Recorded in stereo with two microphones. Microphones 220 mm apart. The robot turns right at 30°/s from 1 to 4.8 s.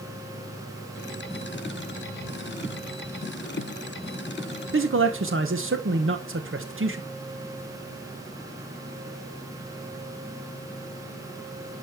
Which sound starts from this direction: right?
A man speaking, at 4.7 s.